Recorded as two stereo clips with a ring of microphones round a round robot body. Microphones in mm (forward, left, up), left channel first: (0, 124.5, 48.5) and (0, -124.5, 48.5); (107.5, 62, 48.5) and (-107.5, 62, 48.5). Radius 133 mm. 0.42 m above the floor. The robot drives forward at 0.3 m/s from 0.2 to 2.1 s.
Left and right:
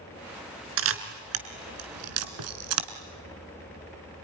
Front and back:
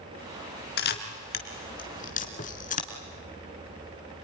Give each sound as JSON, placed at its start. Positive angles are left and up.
{"t": 0.8, "sound": "a camera shutter", "azimuth_deg": -50, "distance_m": 2.0}